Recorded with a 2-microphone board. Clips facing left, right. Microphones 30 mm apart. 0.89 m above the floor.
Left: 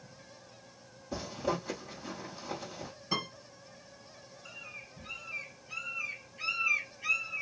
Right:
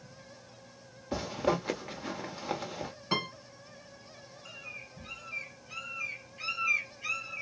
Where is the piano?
70° right (ahead or behind), 3.5 m.